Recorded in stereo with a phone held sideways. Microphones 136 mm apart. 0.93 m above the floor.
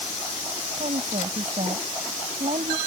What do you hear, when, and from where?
0.8 s a woman speaking: 65° right (ahead or behind); by 2.8 s 55° right (ahead or behind)